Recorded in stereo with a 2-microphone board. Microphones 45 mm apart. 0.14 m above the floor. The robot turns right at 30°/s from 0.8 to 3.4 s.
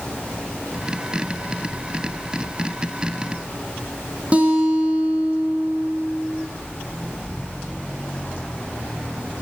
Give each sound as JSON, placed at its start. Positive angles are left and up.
{"t": 4.3, "sound": "a guitar", "side_deg": -30, "distance_m": 5.5}